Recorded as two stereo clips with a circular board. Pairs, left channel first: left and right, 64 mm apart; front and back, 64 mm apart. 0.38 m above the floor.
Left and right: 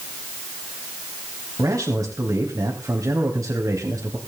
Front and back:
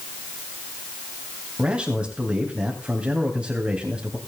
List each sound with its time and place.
1.6 s a man speaking: 110° right, 3 m